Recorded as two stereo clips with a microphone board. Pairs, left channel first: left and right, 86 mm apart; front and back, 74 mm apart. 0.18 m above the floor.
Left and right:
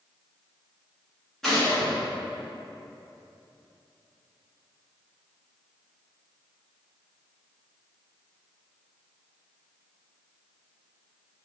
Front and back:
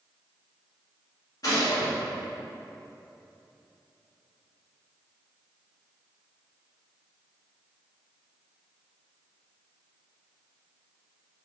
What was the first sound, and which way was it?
A gunshot, 5° left.